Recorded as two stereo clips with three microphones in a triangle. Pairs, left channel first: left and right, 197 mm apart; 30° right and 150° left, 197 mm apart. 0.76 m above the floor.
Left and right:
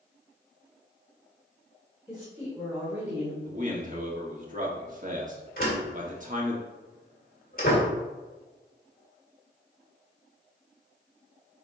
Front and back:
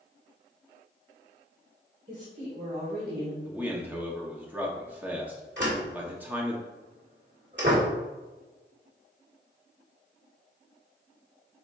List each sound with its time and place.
2.1 s a woman speaking: 175° right, 2.5 m; by 3.4 s 165° right, 1.3 m
3.5 s a man speaking: 130° right, 1.6 m
5.6 s a door slam: 130° left, 1.9 m